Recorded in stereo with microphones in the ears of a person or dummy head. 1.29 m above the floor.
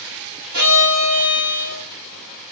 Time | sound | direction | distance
0.5 | a violin | 70° right (ahead or behind) | 6 m